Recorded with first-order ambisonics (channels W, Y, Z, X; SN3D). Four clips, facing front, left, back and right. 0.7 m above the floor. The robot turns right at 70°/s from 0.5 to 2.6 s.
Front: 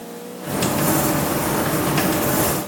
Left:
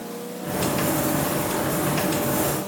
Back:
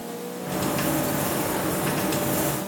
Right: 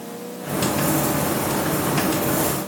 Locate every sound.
Only background noise.